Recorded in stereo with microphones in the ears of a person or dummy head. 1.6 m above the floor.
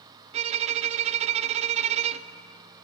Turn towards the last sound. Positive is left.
turn(degrees=-35)  # may be behind; listen again after turning